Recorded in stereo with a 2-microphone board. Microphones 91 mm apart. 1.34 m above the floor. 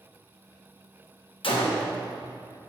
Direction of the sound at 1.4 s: 80° left.